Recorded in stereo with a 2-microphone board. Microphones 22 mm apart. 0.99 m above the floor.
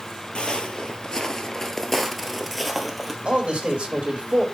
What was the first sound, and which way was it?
Footsteps, 45° left (ahead or behind).